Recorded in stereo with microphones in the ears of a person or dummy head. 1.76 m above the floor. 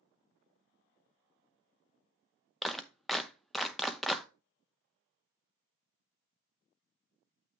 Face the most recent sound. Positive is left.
turn(degrees=0)  # may be behind; listen again after turning